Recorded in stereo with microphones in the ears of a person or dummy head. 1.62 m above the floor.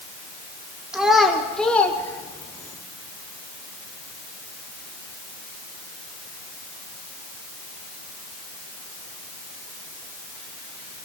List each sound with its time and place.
0.9 s a child speaking: 5° right (ahead or behind), 2.5 m; by 2.8 s 20° left (ahead or behind), 3 m